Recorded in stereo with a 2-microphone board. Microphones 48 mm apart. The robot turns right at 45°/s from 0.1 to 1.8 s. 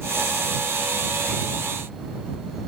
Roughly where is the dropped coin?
I don't hear a dropped coin.